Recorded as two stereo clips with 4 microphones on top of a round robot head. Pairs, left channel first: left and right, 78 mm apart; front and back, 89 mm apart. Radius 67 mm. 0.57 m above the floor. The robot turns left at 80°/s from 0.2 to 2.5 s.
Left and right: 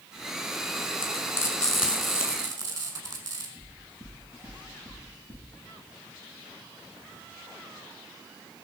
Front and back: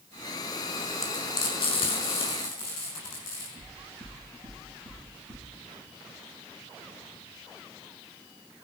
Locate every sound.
1.0 s frying: 60° left, 4.5 m; by 3.5 s 60° right, 4.5 m
3.6 s knocking: 140° right, 8 m